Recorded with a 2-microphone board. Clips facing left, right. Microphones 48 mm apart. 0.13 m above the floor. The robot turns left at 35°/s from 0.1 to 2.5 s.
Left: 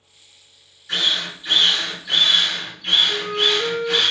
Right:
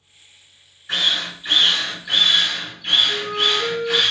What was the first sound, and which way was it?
A drill, 25° right (ahead or behind).